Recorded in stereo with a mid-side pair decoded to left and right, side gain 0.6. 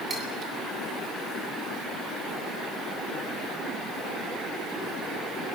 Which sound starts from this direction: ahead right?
Cutlery clinking, at 0.1 s.